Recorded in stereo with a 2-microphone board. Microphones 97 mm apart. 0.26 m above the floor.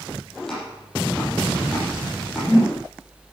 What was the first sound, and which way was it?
Chopping, 5° left (ahead or behind).